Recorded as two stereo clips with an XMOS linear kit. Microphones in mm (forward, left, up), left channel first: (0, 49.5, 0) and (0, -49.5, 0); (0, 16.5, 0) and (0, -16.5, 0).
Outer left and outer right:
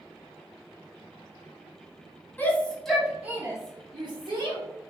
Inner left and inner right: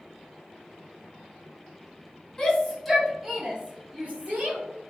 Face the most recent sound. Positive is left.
turn(degrees=-55)  # may be behind; listen again after turning